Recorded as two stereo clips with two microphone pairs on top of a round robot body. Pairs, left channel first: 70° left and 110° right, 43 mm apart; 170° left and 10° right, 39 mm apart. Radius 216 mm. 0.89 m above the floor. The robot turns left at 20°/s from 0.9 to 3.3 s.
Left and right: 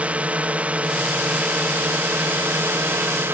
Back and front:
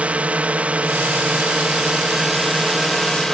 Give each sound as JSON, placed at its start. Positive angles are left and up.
{"t": 0.0, "sound": "a drone", "azimuth_deg": -60}